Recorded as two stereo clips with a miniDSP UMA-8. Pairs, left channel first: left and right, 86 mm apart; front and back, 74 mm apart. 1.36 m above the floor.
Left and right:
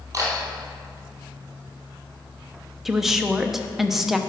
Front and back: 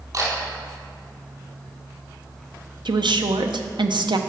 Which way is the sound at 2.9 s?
Straight behind.